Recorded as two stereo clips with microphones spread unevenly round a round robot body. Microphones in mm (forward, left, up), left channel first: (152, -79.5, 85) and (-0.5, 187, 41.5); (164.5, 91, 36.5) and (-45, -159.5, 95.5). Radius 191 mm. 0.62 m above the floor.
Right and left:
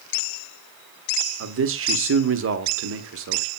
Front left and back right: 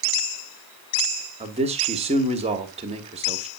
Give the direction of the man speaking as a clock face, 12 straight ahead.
7 o'clock.